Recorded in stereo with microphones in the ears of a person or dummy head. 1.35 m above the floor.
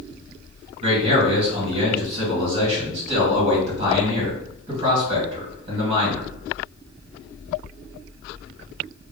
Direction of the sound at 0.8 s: 30° right (ahead or behind).